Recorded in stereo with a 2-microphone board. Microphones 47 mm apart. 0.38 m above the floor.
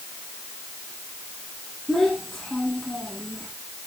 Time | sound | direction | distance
1.9 | a child speaking | 10° left (ahead or behind) | 7.5 m